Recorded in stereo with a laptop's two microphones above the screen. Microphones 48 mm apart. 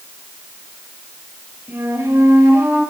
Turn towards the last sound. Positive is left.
turn(degrees=-75)  # may be behind; listen again after turning